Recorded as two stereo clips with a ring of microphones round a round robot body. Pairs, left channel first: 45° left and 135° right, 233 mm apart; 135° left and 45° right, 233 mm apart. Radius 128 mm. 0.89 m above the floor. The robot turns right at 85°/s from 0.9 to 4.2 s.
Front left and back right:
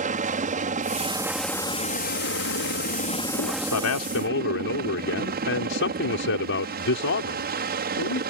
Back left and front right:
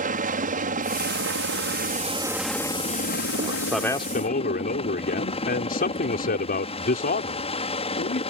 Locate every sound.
0.0 s a helicopter: 90° right; by 8.3 s 170° right
3.4 s a man speaking: 10° left; by 8.2 s 80° left